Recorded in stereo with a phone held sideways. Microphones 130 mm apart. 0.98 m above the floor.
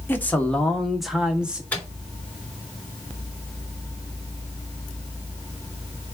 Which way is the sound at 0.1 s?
15° left (ahead or behind).